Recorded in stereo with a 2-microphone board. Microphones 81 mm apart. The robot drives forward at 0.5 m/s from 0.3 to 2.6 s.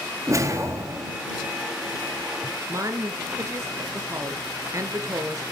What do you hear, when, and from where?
0.3 s a whoosh: 40° right (ahead or behind), 2.5 m; by 1.2 s 35° right (ahead or behind), 2.5 m
2.7 s a woman speaking: 40° right (ahead or behind), 1.3 m